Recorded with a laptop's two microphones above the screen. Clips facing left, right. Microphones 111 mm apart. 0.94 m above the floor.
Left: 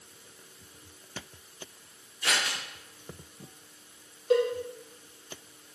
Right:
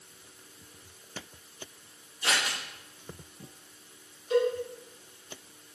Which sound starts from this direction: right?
Scissors, at 2.2 s.